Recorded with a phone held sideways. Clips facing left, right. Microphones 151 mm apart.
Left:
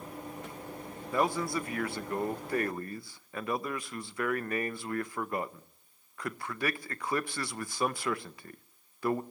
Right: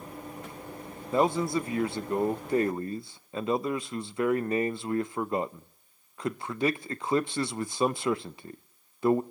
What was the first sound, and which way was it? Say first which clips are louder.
A man speaking: right 5 dB; 25° right (ahead or behind).